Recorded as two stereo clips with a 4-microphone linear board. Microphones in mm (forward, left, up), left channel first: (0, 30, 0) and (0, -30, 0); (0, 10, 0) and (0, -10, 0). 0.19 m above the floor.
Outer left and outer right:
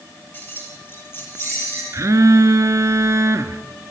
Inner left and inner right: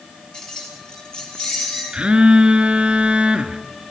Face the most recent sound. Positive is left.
turn(degrees=-55)  # may be behind; listen again after turning